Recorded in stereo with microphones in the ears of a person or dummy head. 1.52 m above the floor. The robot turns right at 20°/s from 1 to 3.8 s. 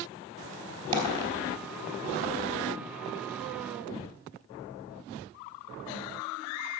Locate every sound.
0.9 s a dropped coin: 30° right (ahead or behind), 3.5 m; by 1.3 s 25° right (ahead or behind), 3.5 m